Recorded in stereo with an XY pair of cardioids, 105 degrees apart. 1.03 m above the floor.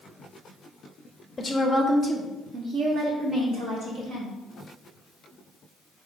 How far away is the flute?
No flute in this recording.